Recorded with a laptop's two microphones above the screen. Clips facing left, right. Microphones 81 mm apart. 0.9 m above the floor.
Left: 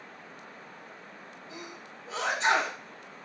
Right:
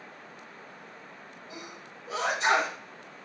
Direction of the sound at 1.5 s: 15° right (ahead or behind).